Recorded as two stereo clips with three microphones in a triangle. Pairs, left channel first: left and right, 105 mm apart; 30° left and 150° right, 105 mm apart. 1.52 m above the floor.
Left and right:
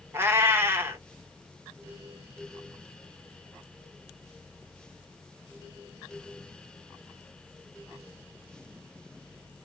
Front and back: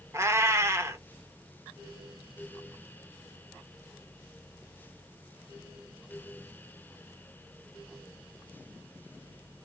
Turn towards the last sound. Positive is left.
turn(degrees=-125)